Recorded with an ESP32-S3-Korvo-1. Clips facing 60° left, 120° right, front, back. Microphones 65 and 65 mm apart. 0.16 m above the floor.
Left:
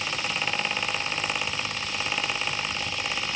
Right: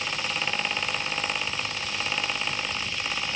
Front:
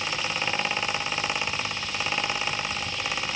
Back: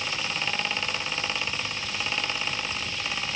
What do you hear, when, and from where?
Only background noise.